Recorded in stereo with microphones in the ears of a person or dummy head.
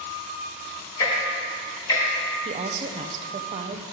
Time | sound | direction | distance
1.0 | ticking | 25° left (ahead or behind) | 1.5 m
2.5 | a woman speaking | 35° right (ahead or behind) | 0.6 m